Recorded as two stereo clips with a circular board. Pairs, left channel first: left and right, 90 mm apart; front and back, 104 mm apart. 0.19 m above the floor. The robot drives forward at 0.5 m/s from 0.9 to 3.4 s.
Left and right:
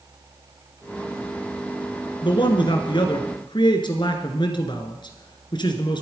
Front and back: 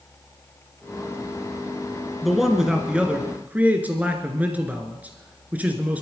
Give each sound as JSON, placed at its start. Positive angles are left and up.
{"t": 2.2, "sound": "a man speaking", "azimuth_deg": 90, "distance_m": 2.5}